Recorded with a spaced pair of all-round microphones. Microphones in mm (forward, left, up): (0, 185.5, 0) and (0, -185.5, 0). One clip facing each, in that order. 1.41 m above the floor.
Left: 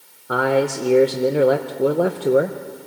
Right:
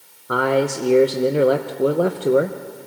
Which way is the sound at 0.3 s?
5° right (ahead or behind).